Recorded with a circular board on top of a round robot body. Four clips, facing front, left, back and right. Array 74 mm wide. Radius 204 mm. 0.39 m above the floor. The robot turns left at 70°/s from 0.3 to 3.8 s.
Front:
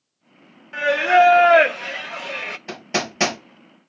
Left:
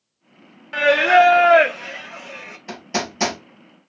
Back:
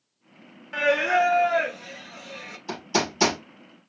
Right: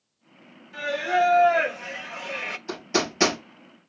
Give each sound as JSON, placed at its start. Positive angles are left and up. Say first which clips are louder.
{"t": 0.7, "sound": "singing", "louder": "left 10 dB, front 6 dB", "azimuth_deg": 95, "distance_m": 0.6}
{"t": 2.7, "sound": "hammering", "louder": "even, back 1 dB", "azimuth_deg": 25, "distance_m": 3.5}